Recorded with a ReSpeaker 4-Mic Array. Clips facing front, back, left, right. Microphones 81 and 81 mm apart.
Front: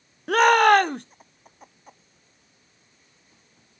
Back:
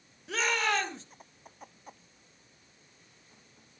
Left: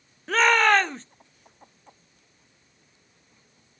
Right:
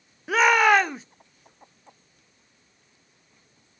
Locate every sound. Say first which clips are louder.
0.3 s a shout: front 14 dB, right 1 dB; 10° right, 0.6 m